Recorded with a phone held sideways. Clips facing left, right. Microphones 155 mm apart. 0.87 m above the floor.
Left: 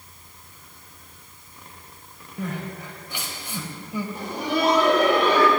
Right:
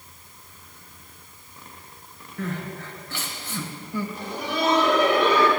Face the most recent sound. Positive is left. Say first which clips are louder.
# left 7 dB
turn(degrees=55)  # may be behind; listen again after turning